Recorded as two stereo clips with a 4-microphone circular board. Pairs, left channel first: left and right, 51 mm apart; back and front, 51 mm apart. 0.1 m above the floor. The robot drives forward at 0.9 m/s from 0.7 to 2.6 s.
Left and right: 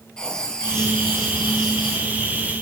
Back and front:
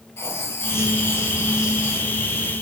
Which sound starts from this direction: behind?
Writing, at 0.2 s.